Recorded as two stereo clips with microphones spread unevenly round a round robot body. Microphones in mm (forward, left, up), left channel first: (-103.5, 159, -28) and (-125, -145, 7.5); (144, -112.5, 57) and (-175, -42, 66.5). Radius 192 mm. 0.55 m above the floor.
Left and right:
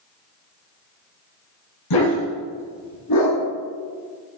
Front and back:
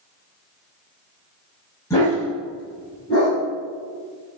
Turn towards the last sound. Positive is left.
turn(degrees=65)